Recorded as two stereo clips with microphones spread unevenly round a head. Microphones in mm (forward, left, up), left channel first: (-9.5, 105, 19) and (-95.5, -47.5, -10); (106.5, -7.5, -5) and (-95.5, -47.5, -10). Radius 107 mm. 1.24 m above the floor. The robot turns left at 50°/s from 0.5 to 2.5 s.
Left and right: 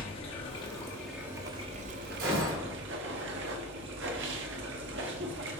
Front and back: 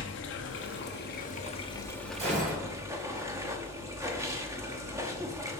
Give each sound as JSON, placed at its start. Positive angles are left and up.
{"t": 0.0, "sound": "running water", "azimuth_deg": 5, "distance_m": 1.0}
{"t": 2.2, "sound": "a gunshot", "azimuth_deg": -105, "distance_m": 3.5}